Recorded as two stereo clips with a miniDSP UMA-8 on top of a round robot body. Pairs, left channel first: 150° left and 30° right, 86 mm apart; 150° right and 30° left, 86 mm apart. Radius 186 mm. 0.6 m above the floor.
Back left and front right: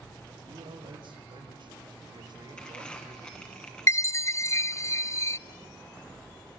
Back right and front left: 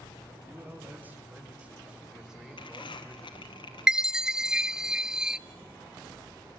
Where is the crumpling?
130° right, 1.4 m.